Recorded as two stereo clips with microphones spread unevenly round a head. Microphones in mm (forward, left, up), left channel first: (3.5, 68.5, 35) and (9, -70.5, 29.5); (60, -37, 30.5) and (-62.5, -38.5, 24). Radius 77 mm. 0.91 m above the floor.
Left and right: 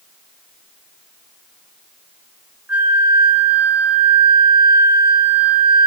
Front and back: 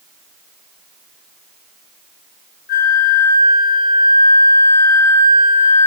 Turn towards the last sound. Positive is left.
turn(degrees=-5)